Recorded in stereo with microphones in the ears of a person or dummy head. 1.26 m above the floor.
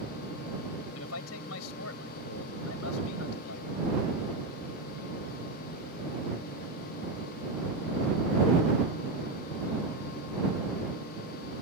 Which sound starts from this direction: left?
A man speaking, at 0.9 s.